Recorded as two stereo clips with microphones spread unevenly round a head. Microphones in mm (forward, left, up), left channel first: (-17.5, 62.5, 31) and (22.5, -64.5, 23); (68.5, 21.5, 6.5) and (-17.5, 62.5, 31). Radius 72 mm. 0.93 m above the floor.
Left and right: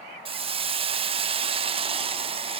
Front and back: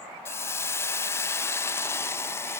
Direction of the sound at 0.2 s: 60° right.